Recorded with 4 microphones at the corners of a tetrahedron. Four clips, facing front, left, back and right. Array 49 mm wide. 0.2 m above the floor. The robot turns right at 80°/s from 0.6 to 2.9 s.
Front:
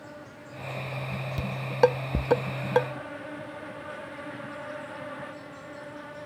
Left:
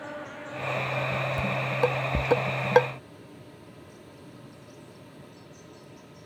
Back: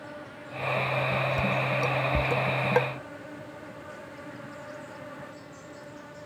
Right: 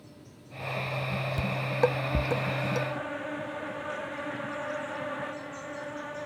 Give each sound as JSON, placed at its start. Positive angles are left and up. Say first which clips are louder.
{"t": 0.0, "sound": "an insect", "louder": "left 14 dB, back 3 dB", "azimuth_deg": 95}
{"t": 1.4, "sound": "dishes clattering", "louder": "right 1 dB, front 2 dB", "azimuth_deg": -30}